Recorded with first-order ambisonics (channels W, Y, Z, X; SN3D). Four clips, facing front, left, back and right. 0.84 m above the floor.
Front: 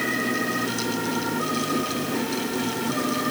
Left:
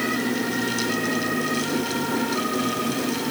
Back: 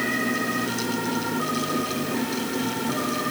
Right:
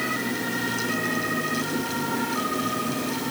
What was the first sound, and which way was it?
Only background noise.